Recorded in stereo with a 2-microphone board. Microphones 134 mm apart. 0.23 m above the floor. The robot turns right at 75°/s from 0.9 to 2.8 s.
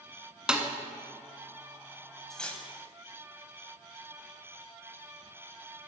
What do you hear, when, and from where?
0.5 s a snare drum: 5° right (ahead or behind), 0.9 m
2.3 s cutlery clinking: centre (ahead or behind), 0.9 m; by 2.7 s 15° left (ahead or behind), 0.9 m